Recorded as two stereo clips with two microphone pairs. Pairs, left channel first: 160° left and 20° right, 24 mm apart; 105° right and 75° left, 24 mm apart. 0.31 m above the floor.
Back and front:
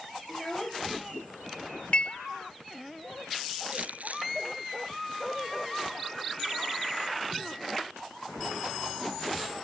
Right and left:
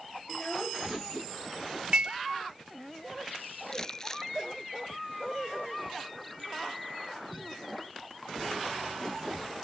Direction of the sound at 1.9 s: 120° left.